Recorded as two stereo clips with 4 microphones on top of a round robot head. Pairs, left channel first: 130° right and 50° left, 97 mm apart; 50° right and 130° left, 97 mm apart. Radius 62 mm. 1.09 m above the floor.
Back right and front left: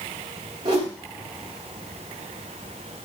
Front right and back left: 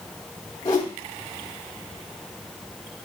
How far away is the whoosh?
About 1.2 m.